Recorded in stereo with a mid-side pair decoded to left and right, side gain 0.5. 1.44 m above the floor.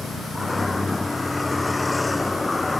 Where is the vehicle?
20° left; by 2.8 s 15° left.